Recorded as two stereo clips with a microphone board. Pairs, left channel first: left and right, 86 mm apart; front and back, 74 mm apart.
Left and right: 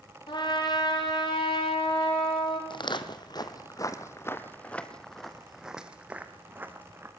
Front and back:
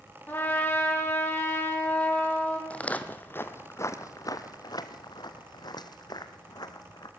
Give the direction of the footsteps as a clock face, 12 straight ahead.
10 o'clock.